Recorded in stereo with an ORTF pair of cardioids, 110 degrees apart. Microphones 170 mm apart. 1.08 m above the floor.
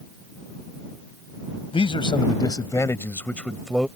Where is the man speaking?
30° left; by 3.9 s straight ahead.